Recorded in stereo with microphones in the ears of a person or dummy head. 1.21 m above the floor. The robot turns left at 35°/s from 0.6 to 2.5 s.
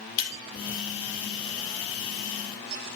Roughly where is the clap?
No clap in this recording.